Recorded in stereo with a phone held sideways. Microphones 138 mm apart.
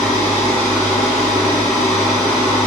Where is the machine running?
20° left (ahead or behind), 2 m.